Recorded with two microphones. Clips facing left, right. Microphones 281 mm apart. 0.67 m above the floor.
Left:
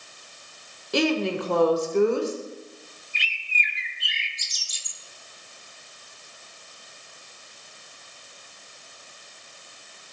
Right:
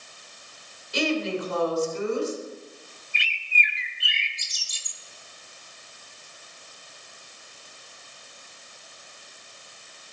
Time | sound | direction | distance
0.9 | a woman speaking | 70° left (ahead or behind) | 2.5 m
3.1 | a bird | 65° right (ahead or behind) | 1.0 m